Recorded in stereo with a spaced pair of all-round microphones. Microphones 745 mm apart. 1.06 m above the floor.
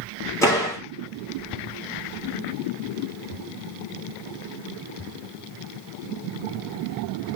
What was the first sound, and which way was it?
A door slam, 5° left (ahead or behind).